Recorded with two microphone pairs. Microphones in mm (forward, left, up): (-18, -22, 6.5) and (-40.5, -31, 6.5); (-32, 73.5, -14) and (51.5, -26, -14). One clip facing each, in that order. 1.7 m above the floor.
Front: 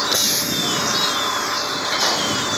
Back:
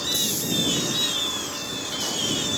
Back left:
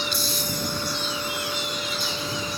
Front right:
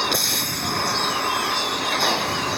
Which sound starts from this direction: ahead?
A vehicle, at 0.0 s.